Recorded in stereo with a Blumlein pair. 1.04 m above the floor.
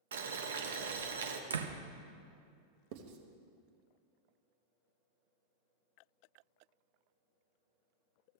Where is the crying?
No crying in this recording.